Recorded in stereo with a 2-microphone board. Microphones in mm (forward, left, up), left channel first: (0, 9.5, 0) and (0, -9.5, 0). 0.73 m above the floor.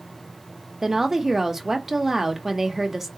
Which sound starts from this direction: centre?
A woman speaking, at 0.8 s.